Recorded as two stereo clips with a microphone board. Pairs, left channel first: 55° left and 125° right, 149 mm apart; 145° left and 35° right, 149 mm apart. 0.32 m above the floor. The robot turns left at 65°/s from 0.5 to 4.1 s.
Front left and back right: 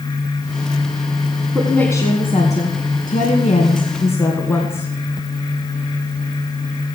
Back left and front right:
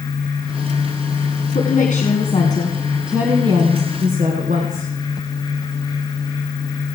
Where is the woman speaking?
150° left, 2.5 m; by 4.9 s 15° right, 2.5 m.